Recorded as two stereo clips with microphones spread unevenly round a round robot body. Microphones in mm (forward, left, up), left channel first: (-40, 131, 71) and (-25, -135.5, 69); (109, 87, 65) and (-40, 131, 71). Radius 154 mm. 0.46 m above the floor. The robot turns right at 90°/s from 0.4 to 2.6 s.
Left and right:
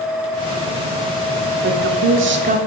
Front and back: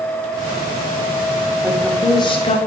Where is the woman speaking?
120° right, 1.2 m; by 2.6 s 35° right, 1.2 m.